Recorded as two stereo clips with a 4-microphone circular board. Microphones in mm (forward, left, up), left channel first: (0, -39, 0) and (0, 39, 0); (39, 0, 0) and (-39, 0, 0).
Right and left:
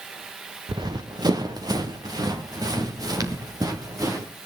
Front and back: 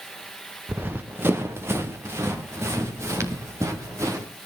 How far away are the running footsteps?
About 1.7 m.